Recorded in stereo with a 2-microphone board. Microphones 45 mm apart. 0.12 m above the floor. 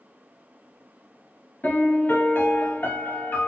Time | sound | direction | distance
1.6 | a piano | 50° left (ahead or behind) | 1.3 m